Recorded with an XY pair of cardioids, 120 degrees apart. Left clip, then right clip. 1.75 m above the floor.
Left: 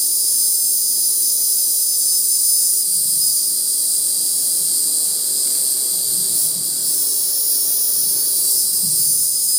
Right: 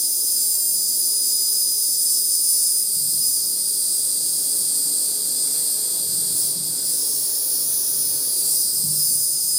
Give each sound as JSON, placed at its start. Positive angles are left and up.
{"t": 0.0, "sound": "an insect", "azimuth_deg": 55, "distance_m": 0.7}